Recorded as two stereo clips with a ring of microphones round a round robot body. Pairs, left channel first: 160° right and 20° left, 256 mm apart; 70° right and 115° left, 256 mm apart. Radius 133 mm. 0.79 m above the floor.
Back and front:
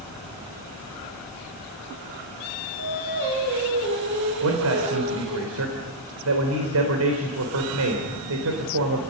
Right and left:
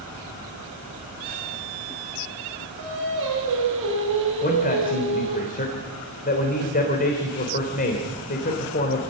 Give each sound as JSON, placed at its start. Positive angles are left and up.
{"t": 2.8, "sound": "singing", "azimuth_deg": 70, "distance_m": 7.5}
{"t": 4.4, "sound": "a man speaking", "azimuth_deg": -10, "distance_m": 3.5}